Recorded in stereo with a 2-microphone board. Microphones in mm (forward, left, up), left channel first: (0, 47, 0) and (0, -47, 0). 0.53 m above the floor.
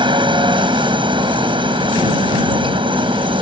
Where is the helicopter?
60° right (ahead or behind); by 3.4 s 65° right (ahead or behind).